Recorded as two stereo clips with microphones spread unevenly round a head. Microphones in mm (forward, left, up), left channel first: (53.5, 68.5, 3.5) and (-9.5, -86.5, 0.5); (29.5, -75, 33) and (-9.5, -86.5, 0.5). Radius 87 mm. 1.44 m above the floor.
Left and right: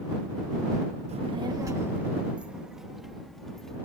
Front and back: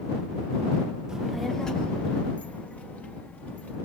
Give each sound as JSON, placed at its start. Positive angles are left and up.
{"t": 1.1, "sound": "a child speaking", "azimuth_deg": -65}